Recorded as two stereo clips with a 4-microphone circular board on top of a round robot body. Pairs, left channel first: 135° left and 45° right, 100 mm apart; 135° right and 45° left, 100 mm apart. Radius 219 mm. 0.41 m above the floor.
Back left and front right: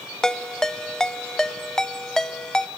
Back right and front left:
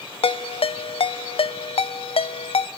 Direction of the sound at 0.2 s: 140° right.